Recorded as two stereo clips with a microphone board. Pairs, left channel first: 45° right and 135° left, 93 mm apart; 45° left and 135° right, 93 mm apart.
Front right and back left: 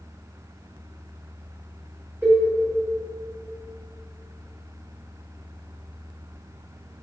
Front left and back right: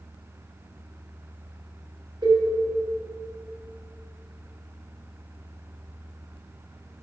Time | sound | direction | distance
2.2 | a cowbell | 160° right | 3 m